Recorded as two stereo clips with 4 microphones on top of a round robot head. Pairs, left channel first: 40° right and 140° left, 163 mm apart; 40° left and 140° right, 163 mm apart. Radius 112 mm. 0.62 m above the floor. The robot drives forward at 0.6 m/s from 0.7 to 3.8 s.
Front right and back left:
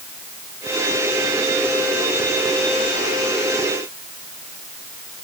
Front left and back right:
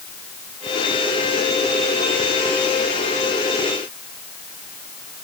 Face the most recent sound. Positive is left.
No sound to turn to.